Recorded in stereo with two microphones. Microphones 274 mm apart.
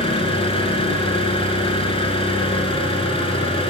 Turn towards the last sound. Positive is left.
turn(degrees=20)  # may be behind; listen again after turning